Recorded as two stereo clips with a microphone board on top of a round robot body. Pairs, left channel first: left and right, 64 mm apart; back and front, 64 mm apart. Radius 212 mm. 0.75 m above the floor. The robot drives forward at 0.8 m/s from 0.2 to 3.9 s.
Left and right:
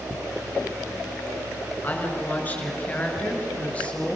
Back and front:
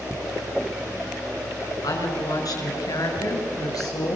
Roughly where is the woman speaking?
Behind left.